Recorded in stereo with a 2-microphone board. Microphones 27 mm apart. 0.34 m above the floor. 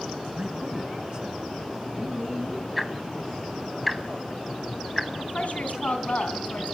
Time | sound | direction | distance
0.3 | a man speaking | 30° right (ahead or behind) | 3.5 m
2.8 | ticking | 5° right (ahead or behind) | 1.0 m
5.2 | a woman speaking | 60° left (ahead or behind) | 3.5 m